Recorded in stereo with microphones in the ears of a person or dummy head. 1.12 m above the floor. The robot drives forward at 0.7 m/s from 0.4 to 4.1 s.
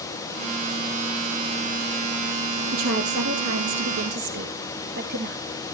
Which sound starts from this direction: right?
A woman speaking, at 2.7 s.